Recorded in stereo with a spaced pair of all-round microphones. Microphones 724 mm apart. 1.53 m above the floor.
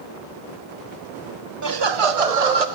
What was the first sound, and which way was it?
Laughter, 25° right (ahead or behind).